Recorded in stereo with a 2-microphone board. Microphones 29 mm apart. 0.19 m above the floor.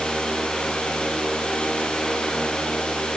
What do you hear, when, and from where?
Only background noise.